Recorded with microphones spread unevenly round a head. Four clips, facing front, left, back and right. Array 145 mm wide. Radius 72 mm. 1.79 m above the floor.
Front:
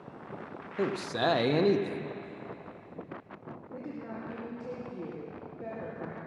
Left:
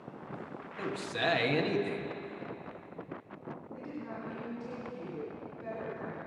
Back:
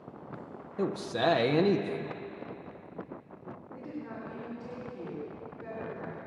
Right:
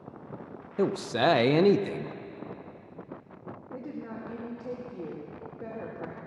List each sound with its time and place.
0.8 s a man speaking: 85° right, 0.5 m
3.7 s a woman speaking: 50° right, 2 m